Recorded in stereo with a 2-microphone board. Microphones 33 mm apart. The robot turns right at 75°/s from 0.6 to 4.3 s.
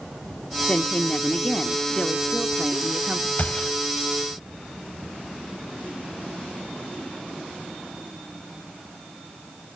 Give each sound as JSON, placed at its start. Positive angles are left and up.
{"t": 0.7, "sound": "a woman speaking", "azimuth_deg": 65, "distance_m": 0.8}
{"t": 3.4, "sound": "a gunshot", "side_deg": 45, "distance_m": 3.5}